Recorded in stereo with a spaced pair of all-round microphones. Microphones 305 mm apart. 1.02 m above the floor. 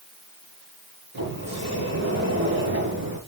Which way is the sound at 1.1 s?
60° right (ahead or behind).